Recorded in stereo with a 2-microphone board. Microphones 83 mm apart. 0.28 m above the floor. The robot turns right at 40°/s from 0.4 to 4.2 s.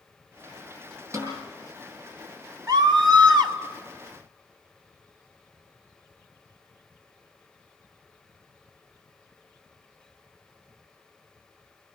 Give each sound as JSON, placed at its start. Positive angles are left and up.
{"t": 1.1, "sound": "a snare drum", "side_deg": -35, "distance_m": 8.0}
{"t": 2.7, "sound": "a scream", "azimuth_deg": -110, "distance_m": 2.0}